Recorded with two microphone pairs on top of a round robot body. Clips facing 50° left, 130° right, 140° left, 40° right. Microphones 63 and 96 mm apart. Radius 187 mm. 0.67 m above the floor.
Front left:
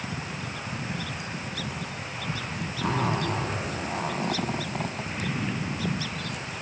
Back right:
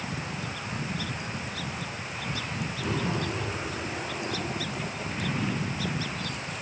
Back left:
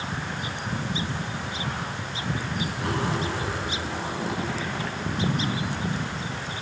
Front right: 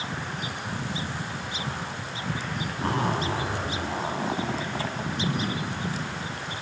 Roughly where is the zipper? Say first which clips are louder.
Front left 4 dB, front right 2 dB; ahead.